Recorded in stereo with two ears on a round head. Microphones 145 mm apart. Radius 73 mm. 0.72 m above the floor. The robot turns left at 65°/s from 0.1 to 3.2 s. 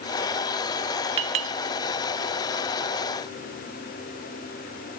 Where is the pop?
I don't hear a pop.